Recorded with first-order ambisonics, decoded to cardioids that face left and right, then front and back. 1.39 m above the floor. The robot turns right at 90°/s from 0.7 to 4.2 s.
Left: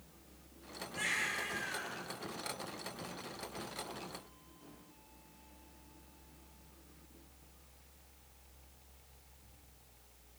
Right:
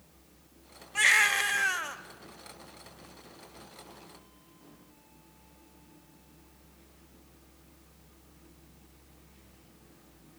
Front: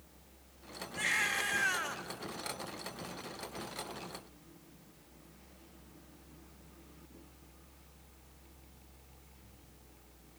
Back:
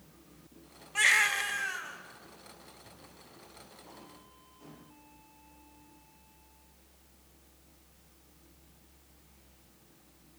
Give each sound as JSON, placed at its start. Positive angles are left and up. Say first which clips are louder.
{"t": 0.9, "sound": "a baby crying", "louder": "right 13 dB, back 7 dB", "azimuth_deg": -135, "distance_m": 1.4}